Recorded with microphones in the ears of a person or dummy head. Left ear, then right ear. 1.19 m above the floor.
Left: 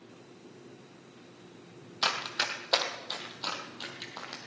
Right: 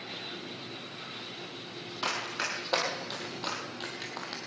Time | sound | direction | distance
2.0 | running footsteps | 30° left (ahead or behind) | 2.5 m